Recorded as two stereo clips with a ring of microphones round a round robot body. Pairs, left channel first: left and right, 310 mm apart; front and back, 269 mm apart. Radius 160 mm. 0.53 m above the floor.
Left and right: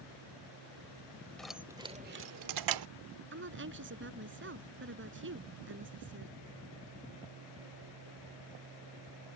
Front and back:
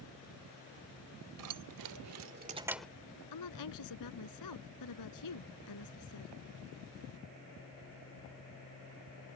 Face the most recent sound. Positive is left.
turn(degrees=-35)